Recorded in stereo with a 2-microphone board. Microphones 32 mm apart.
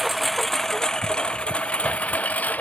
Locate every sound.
0.0 s a lawn mower: 5° right (ahead or behind); by 2.6 s 55° left (ahead or behind)